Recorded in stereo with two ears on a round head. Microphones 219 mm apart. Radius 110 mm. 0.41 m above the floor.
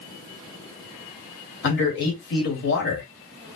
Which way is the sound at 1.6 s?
50° left (ahead or behind).